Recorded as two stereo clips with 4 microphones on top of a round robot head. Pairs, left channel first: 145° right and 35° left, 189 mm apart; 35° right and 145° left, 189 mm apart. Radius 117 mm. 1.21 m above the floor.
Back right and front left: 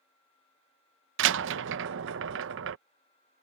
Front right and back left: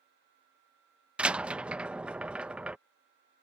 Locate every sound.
1.2 s a door slam: 60° left